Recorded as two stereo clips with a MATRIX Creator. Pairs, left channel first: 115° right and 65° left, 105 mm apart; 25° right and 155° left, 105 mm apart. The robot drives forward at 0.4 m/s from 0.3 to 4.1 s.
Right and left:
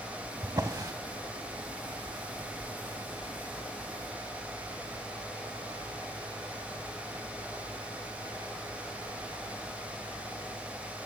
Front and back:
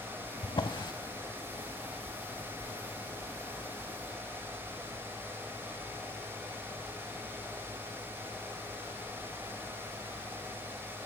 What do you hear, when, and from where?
0.4 s a drawer: 15° left, 0.8 m; by 0.9 s 20° left, 0.6 m